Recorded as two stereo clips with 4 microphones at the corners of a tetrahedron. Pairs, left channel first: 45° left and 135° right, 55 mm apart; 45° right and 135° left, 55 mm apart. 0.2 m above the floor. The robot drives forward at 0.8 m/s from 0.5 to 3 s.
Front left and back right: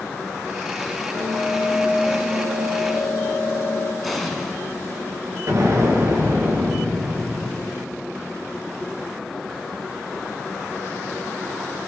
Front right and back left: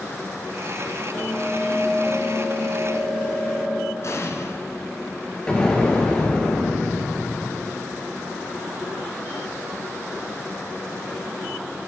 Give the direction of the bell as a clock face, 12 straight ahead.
11 o'clock.